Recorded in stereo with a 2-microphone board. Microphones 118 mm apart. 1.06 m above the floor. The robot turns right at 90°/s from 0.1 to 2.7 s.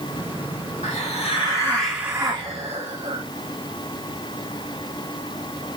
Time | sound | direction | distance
0.8 | a hiss | 85° left | 1.7 m